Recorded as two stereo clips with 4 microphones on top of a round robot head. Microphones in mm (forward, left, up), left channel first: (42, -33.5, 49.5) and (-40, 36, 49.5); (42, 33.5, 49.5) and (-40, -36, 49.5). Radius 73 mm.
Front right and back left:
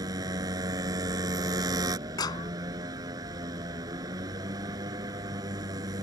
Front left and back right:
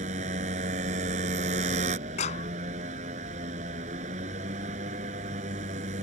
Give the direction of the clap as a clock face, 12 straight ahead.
11 o'clock.